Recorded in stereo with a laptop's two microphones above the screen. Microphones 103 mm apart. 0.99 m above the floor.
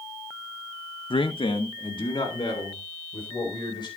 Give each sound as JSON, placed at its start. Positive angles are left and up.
{"t": 1.1, "sound": "a man speaking", "side_deg": 55, "distance_m": 0.8}